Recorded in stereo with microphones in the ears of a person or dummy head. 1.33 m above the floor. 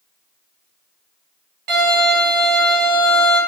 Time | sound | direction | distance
1.7 | a violin | 50° right (ahead or behind) | 1.8 m